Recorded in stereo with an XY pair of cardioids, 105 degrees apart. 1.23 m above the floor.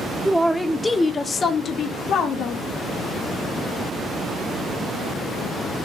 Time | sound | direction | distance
0.2 | a man speaking | 10° right | 0.9 m